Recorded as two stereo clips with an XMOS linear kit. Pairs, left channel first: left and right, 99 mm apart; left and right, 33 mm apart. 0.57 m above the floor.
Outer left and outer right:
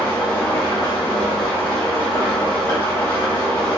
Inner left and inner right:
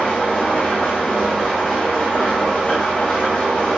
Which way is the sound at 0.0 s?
25° left (ahead or behind).